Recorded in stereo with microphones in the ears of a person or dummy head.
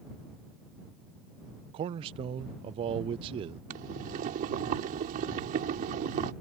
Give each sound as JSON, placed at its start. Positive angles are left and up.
{"t": 1.7, "sound": "a man speaking", "side_deg": -35}
{"t": 3.7, "sound": "boiling", "side_deg": -50}